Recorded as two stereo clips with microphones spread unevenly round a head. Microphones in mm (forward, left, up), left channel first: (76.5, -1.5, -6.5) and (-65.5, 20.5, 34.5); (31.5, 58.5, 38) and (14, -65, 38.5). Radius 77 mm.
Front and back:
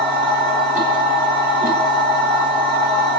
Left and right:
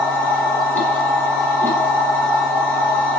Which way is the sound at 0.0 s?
155° left.